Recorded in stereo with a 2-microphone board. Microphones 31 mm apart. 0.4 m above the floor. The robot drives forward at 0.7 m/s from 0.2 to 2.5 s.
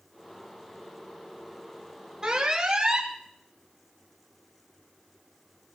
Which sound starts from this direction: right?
An alarm, at 2.2 s.